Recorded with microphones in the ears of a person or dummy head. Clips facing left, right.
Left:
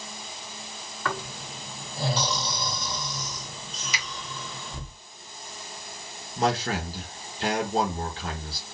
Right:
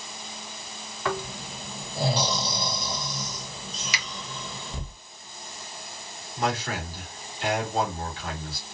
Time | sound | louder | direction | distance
1.1 | snoring | right 3 dB | 15° right (ahead or behind) | 1.6 m
3.9 | a finger snap | left 2 dB | 55° right (ahead or behind) | 1.4 m
6.4 | a man speaking | left 3 dB | 35° left (ahead or behind) | 1.6 m